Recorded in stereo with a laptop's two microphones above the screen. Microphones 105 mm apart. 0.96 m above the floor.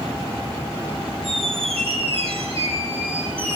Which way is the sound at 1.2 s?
65° right (ahead or behind).